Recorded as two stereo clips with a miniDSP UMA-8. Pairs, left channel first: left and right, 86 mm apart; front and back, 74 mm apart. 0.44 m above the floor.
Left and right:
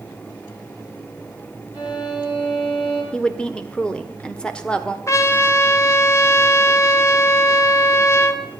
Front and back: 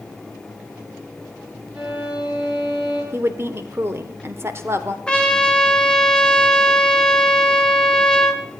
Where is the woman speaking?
165° left, 1.1 m.